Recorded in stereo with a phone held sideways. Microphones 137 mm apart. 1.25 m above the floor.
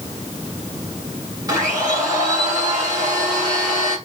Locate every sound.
1.5 s a blender: 25° right (ahead or behind), 3.5 m